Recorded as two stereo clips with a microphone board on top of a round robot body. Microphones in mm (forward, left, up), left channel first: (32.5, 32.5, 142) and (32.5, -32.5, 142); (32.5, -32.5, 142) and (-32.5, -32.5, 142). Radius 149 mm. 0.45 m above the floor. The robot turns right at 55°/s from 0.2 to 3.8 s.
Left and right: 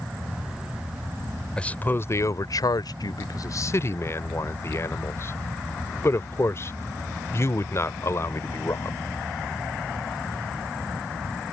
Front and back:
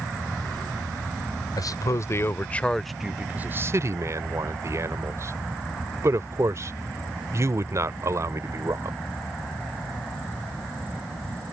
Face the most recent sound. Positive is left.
turn(degrees=135)